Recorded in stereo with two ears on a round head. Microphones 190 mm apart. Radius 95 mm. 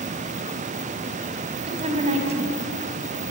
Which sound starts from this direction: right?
A woman speaking, at 1.7 s.